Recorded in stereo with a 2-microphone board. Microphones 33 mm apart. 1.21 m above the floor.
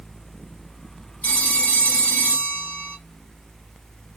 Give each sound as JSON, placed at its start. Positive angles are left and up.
{"t": 1.2, "sound": "a phone ringing", "side_deg": 60, "distance_m": 1.3}